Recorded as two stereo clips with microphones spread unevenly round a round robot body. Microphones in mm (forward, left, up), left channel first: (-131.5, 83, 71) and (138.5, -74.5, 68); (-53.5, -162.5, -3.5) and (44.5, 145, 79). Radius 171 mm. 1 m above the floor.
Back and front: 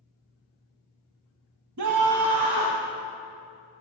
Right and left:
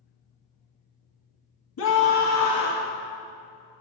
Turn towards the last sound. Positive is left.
turn(degrees=-35)